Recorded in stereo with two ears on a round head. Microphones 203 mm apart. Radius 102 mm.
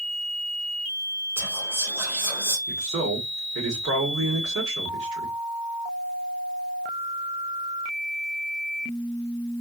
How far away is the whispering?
About 2.5 m.